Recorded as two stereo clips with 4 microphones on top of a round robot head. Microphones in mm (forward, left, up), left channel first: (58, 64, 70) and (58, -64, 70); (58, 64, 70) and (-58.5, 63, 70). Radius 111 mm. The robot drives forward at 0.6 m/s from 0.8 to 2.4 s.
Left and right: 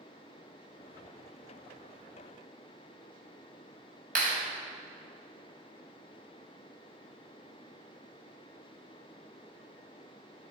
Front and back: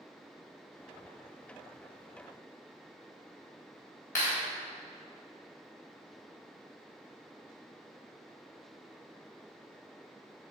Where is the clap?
70° right, 4 m.